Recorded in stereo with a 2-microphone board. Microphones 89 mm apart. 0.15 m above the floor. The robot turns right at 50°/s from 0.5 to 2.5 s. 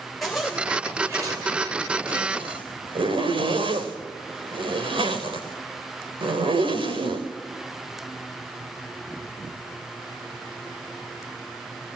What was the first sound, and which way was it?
A zipper, centre (ahead or behind).